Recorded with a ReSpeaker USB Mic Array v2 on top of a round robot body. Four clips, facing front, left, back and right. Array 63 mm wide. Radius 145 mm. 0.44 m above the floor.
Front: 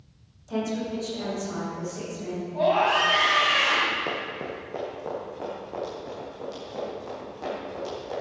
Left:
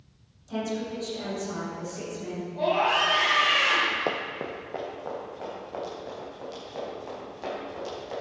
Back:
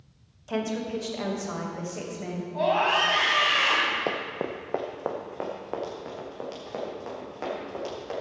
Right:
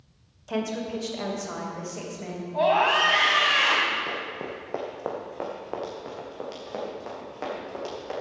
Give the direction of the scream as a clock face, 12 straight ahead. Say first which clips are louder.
Right 3 dB, front 2 dB; 3 o'clock.